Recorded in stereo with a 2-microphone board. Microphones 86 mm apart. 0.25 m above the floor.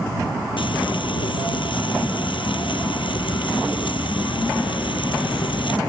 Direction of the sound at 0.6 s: 75° left (ahead or behind).